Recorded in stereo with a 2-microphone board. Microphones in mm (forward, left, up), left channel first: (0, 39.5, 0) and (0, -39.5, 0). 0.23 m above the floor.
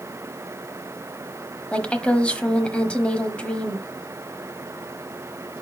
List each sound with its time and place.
1.7 s a woman speaking: 15° left (ahead or behind), 1.1 m